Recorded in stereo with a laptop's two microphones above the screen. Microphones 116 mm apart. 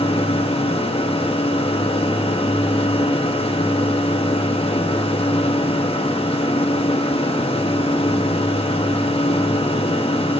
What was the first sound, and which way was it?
A machine running, 55° left (ahead or behind).